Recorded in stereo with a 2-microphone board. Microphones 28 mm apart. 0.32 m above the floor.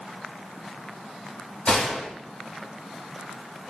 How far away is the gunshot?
About 1.3 m.